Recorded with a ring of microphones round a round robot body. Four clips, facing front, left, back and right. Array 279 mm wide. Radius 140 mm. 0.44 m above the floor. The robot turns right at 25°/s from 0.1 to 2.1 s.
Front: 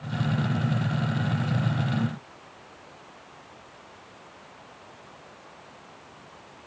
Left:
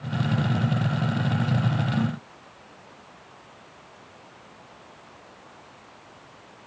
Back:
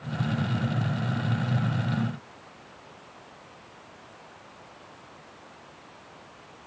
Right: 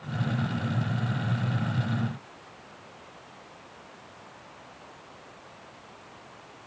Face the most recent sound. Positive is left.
No sound to turn to.